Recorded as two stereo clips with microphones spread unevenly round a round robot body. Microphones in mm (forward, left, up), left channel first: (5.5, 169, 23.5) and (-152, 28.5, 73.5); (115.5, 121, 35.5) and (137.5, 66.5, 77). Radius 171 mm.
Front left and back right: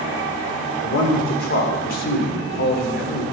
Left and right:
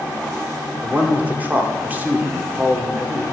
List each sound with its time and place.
0.8 s a man speaking: 15° left, 2.5 m